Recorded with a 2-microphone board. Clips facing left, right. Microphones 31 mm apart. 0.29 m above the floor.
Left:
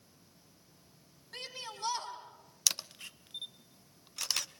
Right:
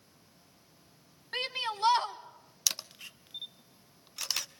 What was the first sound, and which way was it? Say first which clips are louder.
A shout: right 10 dB; 50° right (ahead or behind).